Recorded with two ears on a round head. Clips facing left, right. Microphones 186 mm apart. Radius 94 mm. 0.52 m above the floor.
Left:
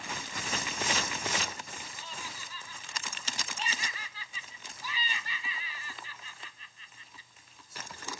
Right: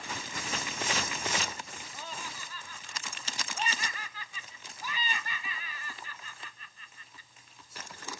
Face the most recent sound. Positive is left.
turn(degrees=-45)  # may be behind; listen again after turning